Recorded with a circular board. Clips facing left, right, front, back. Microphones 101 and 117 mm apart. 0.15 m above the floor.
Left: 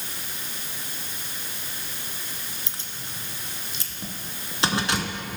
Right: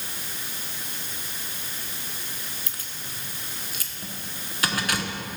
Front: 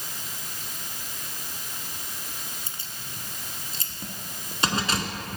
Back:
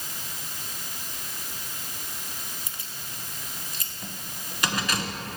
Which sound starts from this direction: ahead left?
Keys jangling, at 2.7 s.